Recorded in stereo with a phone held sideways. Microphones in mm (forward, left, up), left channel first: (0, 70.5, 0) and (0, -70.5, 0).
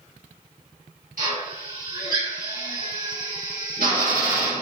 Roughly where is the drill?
Right.